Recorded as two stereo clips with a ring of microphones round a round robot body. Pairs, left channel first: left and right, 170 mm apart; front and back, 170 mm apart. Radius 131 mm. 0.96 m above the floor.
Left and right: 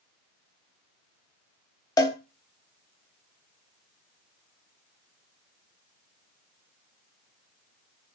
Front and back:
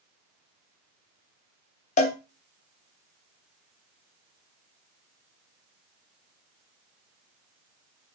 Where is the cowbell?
30° left, 0.6 m.